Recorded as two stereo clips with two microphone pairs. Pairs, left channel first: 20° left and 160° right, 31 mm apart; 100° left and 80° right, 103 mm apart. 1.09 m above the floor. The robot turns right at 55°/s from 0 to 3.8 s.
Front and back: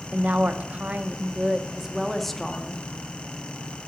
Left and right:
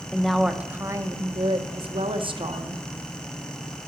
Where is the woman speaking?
Straight behind, 0.8 m; by 2.8 s 30° right, 0.8 m.